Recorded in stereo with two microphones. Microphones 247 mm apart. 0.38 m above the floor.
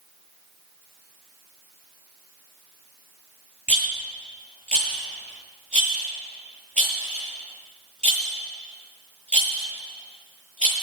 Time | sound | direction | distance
3.7 | a rattle | 30° left (ahead or behind) | 7 m